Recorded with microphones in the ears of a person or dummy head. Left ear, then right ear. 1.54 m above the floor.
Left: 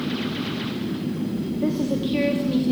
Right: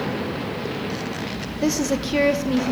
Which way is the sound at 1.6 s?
75° right (ahead or behind).